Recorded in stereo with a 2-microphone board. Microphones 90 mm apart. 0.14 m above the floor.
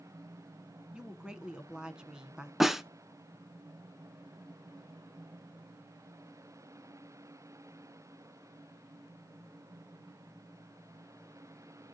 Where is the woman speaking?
10° right (ahead or behind), 1.1 m.